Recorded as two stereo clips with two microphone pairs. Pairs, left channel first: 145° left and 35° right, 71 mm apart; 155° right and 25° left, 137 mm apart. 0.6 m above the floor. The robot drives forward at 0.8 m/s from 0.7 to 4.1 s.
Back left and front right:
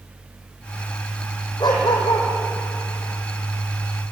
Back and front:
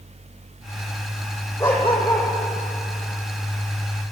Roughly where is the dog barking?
Behind left.